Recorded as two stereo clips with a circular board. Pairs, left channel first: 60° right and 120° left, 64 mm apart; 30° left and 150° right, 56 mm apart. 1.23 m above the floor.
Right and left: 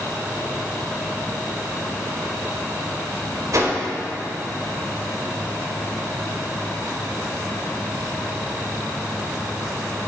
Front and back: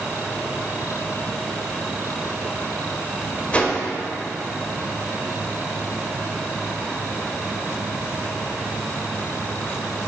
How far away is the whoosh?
About 1.7 m.